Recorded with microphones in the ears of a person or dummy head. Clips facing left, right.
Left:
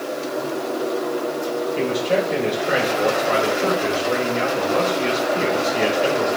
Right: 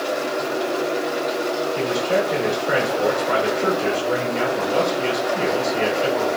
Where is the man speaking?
5° right (ahead or behind), 3.5 m.